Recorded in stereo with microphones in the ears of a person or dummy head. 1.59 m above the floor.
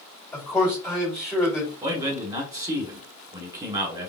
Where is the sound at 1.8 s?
15° right (ahead or behind), 1.5 m.